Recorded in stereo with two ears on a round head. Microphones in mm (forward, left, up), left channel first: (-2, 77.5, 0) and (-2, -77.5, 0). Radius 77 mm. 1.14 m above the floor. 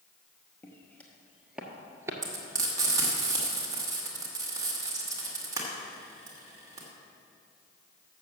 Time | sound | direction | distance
0.6 | footsteps | 15° left (ahead or behind) | 1.6 m
2.2 | frying | 20° right (ahead or behind) | 1.7 m